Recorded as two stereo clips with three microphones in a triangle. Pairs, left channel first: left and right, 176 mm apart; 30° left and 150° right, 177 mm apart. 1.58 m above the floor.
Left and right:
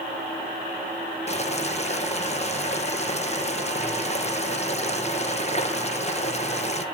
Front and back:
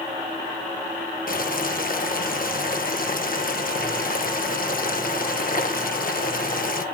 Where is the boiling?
50° left, 0.9 m.